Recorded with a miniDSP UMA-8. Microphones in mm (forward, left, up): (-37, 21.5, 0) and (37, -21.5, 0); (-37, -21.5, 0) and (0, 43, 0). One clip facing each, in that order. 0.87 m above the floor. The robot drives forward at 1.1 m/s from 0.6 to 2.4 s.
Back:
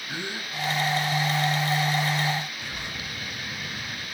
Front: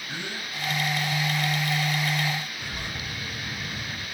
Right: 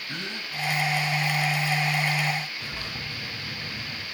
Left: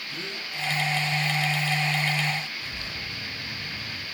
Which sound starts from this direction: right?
A bird, at 2.6 s.